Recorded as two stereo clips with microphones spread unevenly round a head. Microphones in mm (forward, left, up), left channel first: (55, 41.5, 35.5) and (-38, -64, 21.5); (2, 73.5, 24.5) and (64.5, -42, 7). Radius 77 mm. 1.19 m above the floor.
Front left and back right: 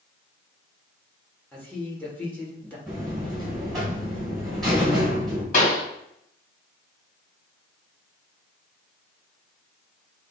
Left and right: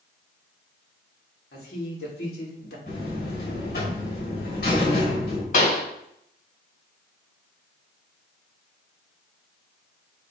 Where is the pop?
90° left, 3 m.